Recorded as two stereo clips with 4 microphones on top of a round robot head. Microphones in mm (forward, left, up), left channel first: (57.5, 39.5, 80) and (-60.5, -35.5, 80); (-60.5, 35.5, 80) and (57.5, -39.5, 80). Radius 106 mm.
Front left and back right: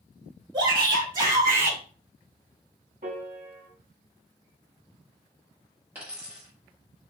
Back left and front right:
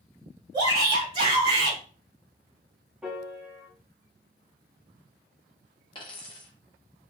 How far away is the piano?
About 1.0 m.